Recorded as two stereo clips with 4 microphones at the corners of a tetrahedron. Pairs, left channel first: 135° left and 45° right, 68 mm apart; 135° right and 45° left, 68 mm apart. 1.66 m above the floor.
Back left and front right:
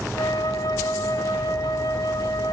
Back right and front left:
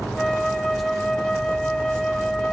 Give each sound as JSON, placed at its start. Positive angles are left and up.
{"t": 0.1, "sound": "a flute", "azimuth_deg": 135, "distance_m": 3.5}